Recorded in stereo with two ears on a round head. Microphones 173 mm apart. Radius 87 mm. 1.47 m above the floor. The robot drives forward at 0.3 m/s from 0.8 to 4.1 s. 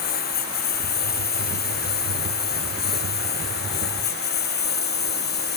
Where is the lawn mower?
50° left (ahead or behind); by 5.6 s 55° left (ahead or behind).